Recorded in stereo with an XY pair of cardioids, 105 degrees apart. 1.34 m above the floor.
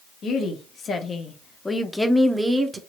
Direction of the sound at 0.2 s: 60° left.